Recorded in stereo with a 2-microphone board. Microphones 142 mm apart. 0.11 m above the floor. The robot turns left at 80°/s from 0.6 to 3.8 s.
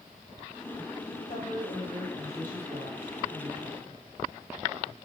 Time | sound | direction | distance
1.3 | a woman speaking | 70° left | 9 m